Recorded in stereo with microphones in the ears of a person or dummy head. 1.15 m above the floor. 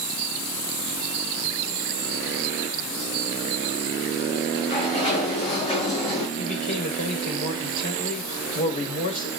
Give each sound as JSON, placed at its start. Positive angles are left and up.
{"t": 4.5, "sound": "a sliding door", "side_deg": 30, "distance_m": 7.0}
{"t": 6.4, "sound": "a man speaking", "side_deg": 40, "distance_m": 4.5}